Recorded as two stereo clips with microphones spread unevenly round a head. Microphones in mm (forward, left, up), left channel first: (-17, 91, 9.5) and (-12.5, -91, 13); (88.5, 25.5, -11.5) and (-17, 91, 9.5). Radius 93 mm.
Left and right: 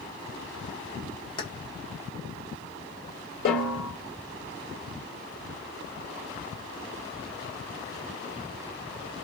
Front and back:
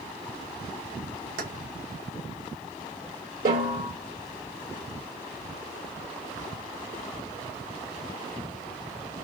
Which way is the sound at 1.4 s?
160° left.